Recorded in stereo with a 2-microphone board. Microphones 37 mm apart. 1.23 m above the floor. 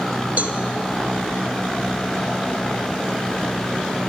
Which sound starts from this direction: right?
A cowbell, at 0.4 s.